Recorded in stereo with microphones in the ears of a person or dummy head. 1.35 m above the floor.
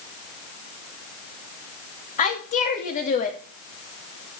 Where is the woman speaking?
35° left (ahead or behind), 2.5 m.